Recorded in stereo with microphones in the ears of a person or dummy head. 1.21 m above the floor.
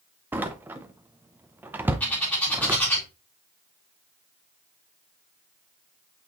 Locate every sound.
0.3 s a door slam: 10° right (ahead or behind), 0.6 m
2.0 s a bird: 5° left (ahead or behind), 2.5 m